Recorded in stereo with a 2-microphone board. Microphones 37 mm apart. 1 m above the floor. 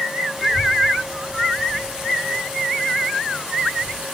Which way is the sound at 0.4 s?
5° right (ahead or behind).